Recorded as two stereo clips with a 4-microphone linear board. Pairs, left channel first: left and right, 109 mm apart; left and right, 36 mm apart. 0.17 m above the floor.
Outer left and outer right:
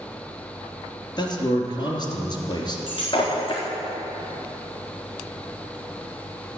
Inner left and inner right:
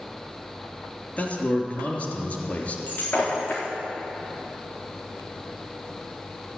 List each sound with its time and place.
1.2 s a man speaking: 40° left (ahead or behind), 3 m
2.9 s breaking glass: 45° left (ahead or behind), 4 m